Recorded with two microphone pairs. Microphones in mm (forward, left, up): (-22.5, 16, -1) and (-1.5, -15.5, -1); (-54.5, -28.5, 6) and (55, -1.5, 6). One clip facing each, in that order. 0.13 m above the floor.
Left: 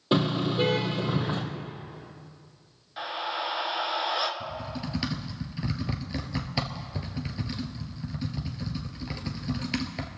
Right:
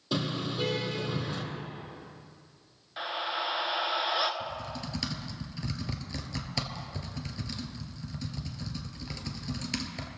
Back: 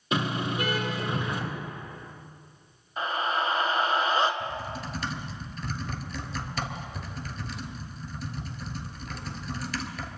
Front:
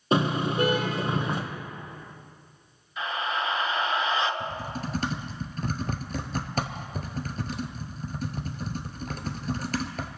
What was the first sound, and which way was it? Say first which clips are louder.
A car horn: left 7 dB, front 4 dB; 65° left.